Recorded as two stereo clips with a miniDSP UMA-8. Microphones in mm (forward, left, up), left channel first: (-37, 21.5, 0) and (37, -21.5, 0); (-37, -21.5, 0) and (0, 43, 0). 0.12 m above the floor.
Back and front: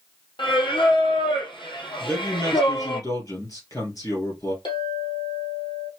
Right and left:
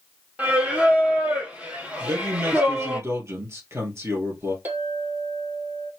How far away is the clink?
About 3 m.